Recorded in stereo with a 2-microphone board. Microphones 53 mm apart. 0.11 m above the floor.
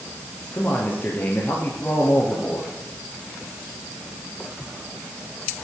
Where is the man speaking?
35° left (ahead or behind), 2.5 m.